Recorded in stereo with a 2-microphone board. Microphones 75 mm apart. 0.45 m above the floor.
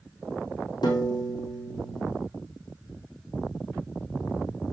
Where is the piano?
70° left (ahead or behind), 3.5 m.